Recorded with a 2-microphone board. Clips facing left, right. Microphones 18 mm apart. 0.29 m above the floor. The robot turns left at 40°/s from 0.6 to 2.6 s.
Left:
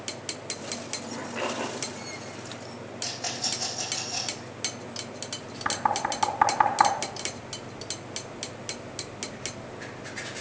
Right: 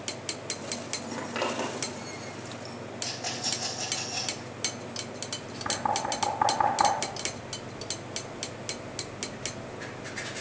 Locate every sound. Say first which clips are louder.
1.1 s a zipper: right 1 dB; 75° right (ahead or behind), 6 m; by 3.9 s 15° right (ahead or behind), 6 m
3.0 s a rattle: left 2 dB; 35° left (ahead or behind), 8 m
5.7 s knocking: left 2 dB; 50° left (ahead or behind), 2.5 m